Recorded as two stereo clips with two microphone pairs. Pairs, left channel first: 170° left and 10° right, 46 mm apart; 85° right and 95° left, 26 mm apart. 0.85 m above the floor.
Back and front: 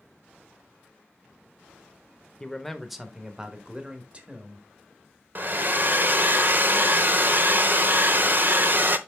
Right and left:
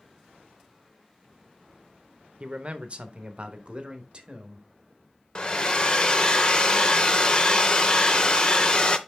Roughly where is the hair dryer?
Ahead right.